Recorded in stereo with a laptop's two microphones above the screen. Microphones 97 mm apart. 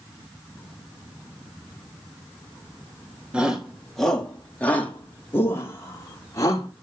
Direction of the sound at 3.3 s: 10° right (ahead or behind).